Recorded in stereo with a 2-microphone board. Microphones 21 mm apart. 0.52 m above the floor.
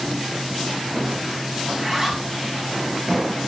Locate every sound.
1.7 s a zipper: 10° left (ahead or behind), 5.5 m